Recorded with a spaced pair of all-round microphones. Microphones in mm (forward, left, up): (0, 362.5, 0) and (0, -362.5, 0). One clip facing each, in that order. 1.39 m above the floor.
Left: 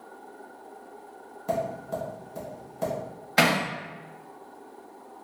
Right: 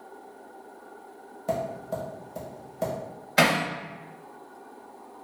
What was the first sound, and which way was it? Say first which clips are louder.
Tapping: even; 15° right (ahead or behind).